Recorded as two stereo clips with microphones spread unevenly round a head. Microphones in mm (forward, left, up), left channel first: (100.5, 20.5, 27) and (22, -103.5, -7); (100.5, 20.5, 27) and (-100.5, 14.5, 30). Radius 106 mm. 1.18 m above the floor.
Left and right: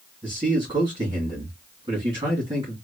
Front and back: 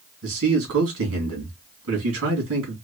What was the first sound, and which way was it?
A man speaking, 175° left.